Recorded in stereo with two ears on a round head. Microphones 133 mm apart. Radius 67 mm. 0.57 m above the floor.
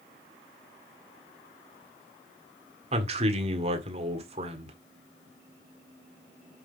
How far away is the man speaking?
About 1.6 m.